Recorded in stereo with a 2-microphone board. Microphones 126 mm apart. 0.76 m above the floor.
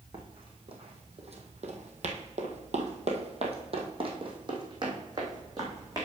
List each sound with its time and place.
0.1 s running footsteps: 45° right (ahead or behind), 2 m; by 6.1 s 30° right (ahead or behind), 3 m